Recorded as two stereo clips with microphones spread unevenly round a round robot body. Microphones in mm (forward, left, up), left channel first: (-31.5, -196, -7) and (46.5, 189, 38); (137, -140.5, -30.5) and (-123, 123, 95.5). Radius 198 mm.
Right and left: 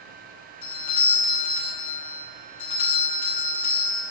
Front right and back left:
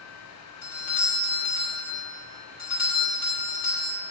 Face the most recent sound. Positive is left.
turn(degrees=-70)